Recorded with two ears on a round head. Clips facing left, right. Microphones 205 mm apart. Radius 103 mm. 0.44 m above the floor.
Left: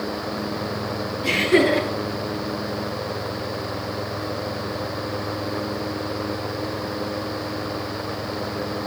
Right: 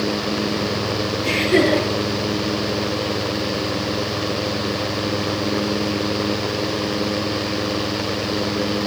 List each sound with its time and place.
1.2 s laughter: 10° left (ahead or behind), 7 m